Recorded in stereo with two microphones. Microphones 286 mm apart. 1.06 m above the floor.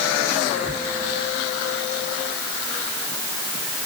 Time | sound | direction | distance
0.5 | whispering | 30° right (ahead or behind) | 0.8 m